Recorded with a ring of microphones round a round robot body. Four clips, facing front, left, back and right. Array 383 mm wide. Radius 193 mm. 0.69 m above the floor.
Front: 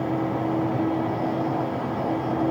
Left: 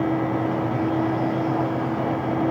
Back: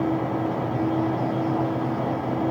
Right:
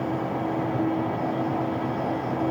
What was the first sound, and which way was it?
Only background noise.